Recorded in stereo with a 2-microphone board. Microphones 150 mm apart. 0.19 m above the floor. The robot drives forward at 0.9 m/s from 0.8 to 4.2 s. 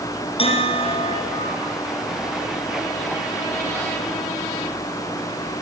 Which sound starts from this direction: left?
A bell, at 0.4 s.